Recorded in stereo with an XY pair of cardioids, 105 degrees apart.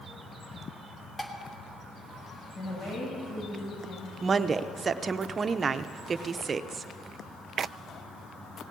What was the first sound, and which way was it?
Dishes clattering, 15° left.